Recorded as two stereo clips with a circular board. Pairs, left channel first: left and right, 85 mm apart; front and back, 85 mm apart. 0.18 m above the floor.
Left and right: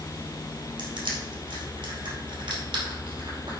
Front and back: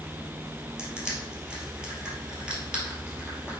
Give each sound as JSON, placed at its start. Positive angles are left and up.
{"t": 0.8, "sound": "crushing", "azimuth_deg": -100, "distance_m": 2.5}